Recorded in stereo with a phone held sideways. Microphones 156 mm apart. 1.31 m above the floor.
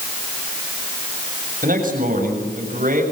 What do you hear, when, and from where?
1.6 s a man speaking: 65° right (ahead or behind), 7 m